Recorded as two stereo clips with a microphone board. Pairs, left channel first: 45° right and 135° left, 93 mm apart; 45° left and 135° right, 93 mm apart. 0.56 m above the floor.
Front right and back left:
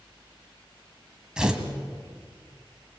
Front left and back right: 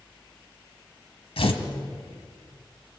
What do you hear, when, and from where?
1.4 s tearing paper: 55° left, 2.5 m